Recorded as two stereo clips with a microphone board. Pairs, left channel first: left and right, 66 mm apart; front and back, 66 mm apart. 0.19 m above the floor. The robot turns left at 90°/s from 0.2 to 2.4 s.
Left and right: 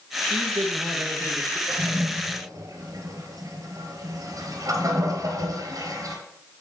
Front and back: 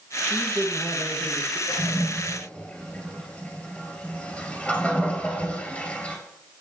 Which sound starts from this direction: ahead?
A toilet flushing, at 1.7 s.